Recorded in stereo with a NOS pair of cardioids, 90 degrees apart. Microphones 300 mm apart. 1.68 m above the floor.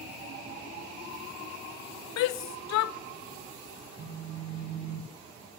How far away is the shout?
About 0.5 m.